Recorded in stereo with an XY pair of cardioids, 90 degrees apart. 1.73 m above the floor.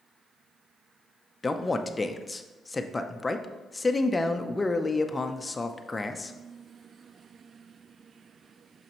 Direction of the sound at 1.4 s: 25° left.